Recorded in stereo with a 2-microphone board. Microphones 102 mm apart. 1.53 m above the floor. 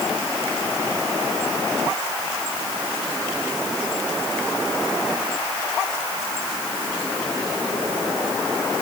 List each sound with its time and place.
Only background noise.